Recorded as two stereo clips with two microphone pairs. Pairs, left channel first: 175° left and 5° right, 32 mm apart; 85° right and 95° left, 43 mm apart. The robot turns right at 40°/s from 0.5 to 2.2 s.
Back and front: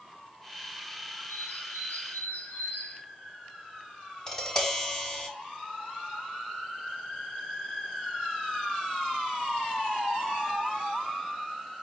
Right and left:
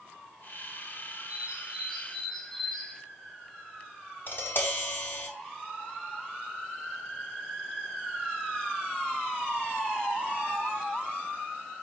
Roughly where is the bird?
Behind.